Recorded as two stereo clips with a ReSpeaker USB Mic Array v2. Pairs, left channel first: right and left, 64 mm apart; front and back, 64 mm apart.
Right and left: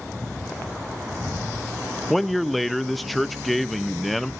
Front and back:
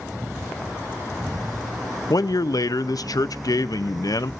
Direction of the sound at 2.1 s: Straight ahead.